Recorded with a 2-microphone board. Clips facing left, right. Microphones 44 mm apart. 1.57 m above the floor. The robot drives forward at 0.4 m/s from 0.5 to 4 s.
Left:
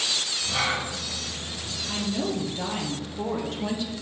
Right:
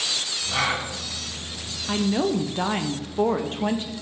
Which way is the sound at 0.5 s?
25° right (ahead or behind).